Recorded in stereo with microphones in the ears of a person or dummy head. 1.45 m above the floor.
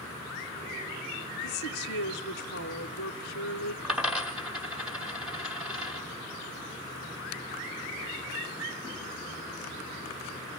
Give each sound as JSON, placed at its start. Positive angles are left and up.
{"t": 1.4, "sound": "a woman speaking", "side_deg": 55, "distance_m": 1.1}
{"t": 3.8, "sound": "a dropped coin", "side_deg": 0, "distance_m": 1.3}